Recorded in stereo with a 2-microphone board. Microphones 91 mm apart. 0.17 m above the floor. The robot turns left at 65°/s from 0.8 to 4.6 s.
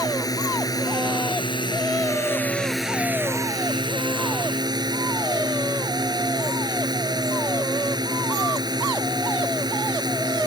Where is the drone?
130° left; by 10.5 s 120° right.